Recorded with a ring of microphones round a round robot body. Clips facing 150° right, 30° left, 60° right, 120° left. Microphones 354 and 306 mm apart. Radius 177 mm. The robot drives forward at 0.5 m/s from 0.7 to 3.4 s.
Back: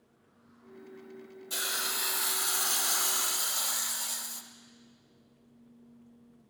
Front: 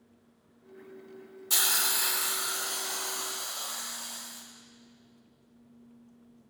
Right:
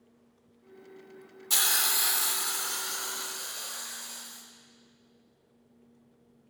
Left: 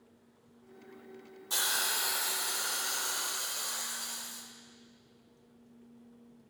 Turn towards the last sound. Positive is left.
turn(degrees=-155)